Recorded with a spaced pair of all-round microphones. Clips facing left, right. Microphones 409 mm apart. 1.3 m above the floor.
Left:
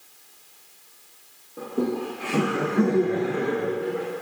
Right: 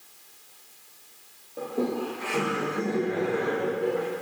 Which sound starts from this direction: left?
Laughter, at 1.6 s.